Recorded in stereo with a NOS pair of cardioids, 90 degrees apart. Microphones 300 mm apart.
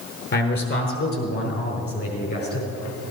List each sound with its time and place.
0.3 s a man speaking: 40° left, 4.5 m; by 2.7 s 50° left, 7 m